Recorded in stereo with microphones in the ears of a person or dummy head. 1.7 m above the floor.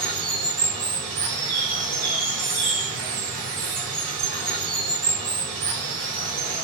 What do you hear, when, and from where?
0.0 s running water: 35° right (ahead or behind), 1.4 m
1.2 s a bird: 15° right (ahead or behind), 1.8 m